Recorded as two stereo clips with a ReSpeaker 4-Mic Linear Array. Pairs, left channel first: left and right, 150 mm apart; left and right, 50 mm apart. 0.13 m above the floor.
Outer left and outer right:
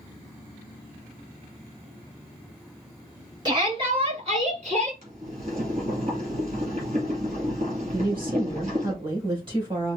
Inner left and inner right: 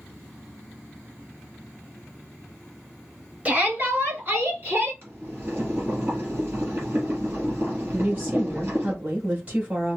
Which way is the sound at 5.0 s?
45° right (ahead or behind).